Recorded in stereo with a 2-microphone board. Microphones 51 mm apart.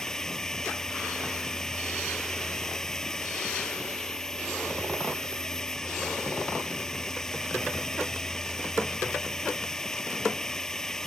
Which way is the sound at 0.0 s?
10° left (ahead or behind).